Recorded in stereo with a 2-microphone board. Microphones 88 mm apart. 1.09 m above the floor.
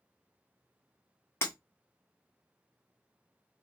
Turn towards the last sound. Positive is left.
turn(degrees=30)  # may be behind; listen again after turning